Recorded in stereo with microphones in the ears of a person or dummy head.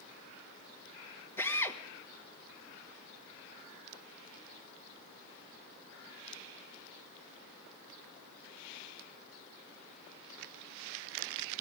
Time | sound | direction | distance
1.4 | a drill | 15° left (ahead or behind) | 1.4 m